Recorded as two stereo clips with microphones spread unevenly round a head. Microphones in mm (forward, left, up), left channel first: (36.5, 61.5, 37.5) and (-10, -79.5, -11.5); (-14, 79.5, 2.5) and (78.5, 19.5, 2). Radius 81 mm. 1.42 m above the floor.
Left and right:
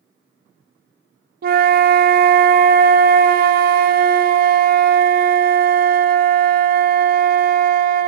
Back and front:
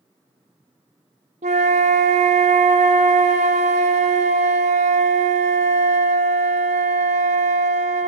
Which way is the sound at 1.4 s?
80° right.